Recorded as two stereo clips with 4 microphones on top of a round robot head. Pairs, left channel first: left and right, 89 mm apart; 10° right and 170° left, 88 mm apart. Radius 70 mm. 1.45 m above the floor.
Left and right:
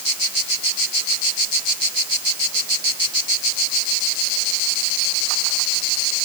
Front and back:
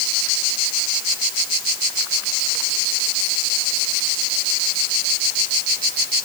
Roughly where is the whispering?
No whispering in this recording.